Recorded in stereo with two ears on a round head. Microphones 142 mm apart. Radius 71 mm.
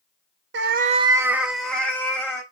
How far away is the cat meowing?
About 0.5 m.